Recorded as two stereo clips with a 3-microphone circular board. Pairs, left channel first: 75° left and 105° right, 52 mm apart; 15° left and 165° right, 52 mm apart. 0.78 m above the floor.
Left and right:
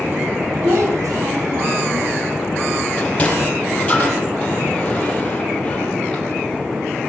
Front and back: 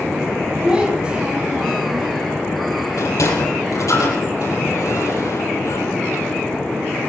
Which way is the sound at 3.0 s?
10° left.